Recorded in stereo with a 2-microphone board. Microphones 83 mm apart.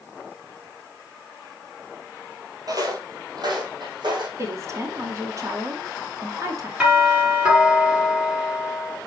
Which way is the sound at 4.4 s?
40° right (ahead or behind).